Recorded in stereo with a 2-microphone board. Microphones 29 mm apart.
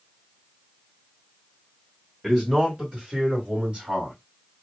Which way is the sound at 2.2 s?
15° right (ahead or behind).